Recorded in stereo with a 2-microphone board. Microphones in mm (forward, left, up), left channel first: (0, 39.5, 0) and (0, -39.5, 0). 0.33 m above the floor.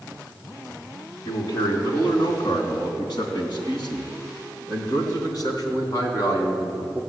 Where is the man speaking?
65° left (ahead or behind), 3.5 m; by 7.0 s 45° left (ahead or behind), 3.5 m.